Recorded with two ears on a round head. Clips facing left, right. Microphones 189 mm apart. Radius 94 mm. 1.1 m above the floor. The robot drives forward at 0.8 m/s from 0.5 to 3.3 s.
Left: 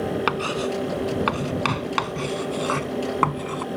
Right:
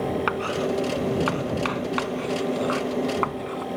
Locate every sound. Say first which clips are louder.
0.3 s writing: even; 55° left (ahead or behind); by 3.7 s 65° left (ahead or behind)